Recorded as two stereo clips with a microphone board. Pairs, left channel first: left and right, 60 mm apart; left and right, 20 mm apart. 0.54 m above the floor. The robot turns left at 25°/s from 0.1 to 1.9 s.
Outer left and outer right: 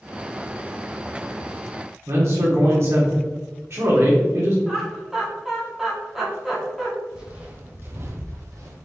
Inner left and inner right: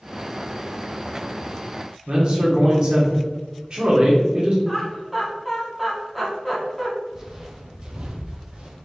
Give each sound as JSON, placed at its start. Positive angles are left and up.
{"t": 2.1, "sound": "a man speaking", "side_deg": -50, "distance_m": 1.2}
{"t": 4.7, "sound": "laughter", "side_deg": -5, "distance_m": 1.0}
{"t": 7.1, "sound": "footsteps", "side_deg": -15, "distance_m": 0.9}